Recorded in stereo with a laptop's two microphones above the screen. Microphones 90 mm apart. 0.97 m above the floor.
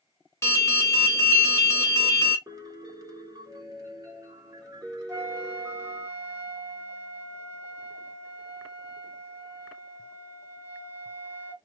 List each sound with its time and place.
0.4 s an alarm: 30° left (ahead or behind), 1.0 m
2.5 s a piano: 40° right (ahead or behind), 1.1 m
5.1 s a flute: 20° right (ahead or behind), 1.2 m